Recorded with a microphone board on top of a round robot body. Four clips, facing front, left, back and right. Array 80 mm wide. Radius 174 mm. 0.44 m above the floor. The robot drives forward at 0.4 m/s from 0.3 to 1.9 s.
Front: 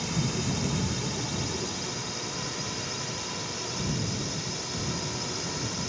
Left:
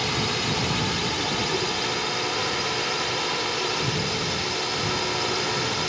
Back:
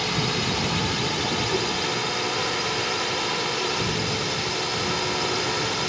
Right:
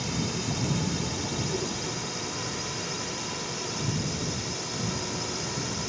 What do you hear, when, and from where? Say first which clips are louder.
0.0 s a drone: left 5 dB, back 5 dB; 135° left